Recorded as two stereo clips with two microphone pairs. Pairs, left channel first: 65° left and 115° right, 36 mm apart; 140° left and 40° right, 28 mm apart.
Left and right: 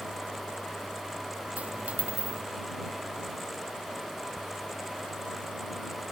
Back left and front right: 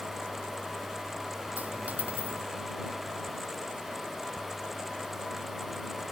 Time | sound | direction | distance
1.6 | a dropped coin | 60° right | ?